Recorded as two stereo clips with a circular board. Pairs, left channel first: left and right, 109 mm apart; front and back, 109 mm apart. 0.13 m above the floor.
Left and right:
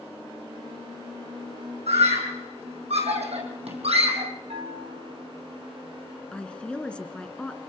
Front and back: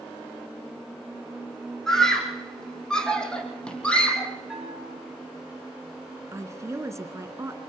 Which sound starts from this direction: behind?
A woman speaking, at 6.3 s.